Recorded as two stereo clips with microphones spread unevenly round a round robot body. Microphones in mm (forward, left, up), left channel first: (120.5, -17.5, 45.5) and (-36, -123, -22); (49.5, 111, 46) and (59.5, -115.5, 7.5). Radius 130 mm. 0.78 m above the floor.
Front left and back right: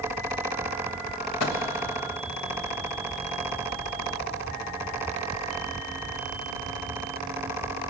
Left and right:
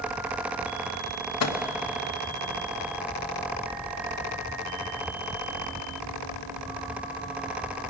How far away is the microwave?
About 1.1 m.